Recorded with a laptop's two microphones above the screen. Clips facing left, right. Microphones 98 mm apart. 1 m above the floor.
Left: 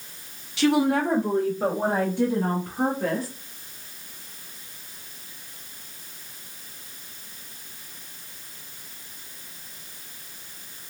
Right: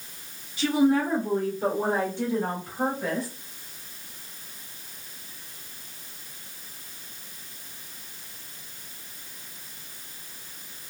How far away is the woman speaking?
About 0.7 m.